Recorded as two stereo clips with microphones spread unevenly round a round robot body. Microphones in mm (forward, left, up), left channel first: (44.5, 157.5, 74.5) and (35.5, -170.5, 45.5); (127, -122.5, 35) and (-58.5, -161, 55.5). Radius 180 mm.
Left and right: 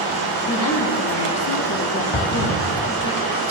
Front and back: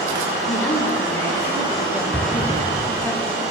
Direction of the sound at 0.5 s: 75° left.